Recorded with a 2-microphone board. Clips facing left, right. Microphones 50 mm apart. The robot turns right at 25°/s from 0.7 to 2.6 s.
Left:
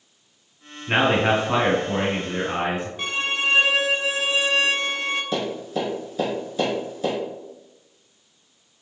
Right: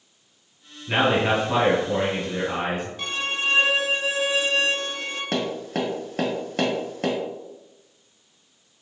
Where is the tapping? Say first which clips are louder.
Even; 60° right (ahead or behind), 1.1 m.